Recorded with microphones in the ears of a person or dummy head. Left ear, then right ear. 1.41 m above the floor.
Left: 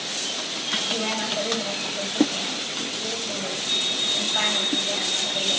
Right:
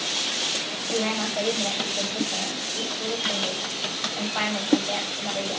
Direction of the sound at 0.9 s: 15° right (ahead or behind).